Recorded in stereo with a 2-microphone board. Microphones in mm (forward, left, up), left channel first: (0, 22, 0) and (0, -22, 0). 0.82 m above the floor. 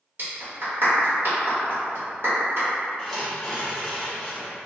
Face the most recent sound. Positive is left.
turn(degrees=10)  # may be behind; listen again after turning